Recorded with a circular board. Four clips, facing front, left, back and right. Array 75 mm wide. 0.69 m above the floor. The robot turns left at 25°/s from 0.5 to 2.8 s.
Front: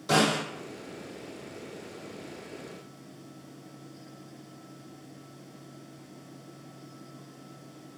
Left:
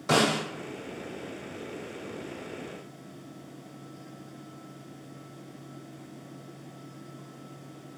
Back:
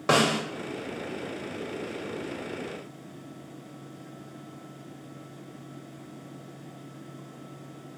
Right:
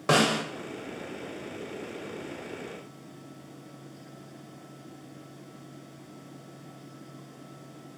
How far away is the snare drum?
About 1.1 m.